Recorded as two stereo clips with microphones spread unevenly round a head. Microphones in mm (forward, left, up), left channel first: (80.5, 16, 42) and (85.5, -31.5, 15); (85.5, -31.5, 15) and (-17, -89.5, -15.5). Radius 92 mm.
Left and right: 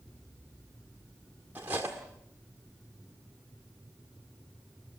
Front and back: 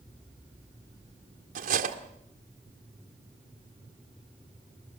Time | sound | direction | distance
1.6 | cutlery clinking | 160° right | 1.6 m